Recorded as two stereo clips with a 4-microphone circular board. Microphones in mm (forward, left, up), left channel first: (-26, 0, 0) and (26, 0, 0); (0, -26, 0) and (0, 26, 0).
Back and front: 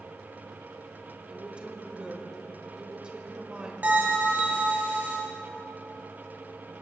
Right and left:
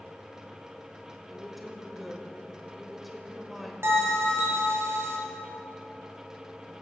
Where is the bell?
55° left, 1.9 m.